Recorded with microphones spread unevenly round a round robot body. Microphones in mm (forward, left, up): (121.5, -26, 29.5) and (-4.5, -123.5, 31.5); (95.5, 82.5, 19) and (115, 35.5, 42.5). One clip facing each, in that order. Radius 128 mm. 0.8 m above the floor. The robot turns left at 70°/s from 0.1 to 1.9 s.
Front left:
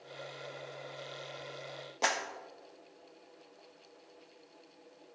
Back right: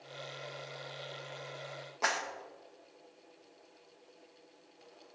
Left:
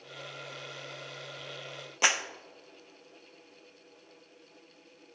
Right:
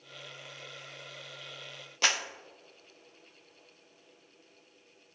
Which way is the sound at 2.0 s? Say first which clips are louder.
Front left 2 dB, left 2 dB; 90° left.